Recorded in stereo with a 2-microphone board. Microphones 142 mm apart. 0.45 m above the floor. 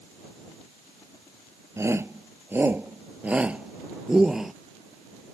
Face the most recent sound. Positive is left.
turn(degrees=0)  # may be behind; listen again after turning